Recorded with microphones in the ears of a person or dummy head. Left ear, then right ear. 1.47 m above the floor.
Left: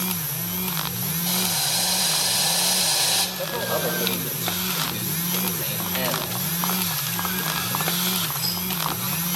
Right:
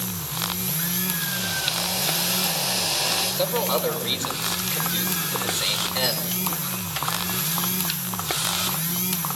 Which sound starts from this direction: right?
A man speaking, at 3.4 s.